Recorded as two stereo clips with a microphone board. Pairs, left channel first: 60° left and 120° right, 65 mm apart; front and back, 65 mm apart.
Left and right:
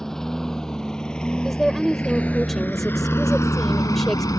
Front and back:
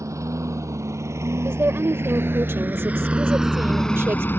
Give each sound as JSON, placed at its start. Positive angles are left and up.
{"t": 0.0, "sound": "a lawn mower", "azimuth_deg": 145}
{"t": 1.4, "sound": "a woman speaking", "azimuth_deg": 145}